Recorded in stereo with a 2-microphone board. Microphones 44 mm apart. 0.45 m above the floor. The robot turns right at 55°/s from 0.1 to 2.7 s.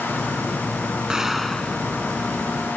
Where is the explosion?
15° right; by 1.9 s 25° left.